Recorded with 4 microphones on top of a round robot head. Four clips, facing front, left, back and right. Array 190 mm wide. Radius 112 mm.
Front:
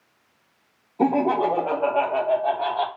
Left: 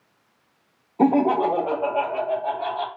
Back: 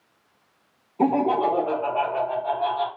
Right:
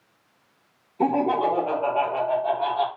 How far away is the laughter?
About 1.2 m.